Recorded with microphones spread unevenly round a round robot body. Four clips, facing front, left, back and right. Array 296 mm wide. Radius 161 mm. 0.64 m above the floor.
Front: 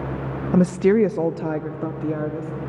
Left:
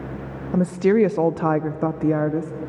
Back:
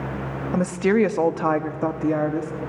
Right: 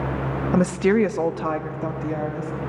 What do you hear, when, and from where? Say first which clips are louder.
0.5 s a woman speaking: left 2 dB, front 3 dB; 50° right, 0.6 m; by 2.5 s 125° left, 1.0 m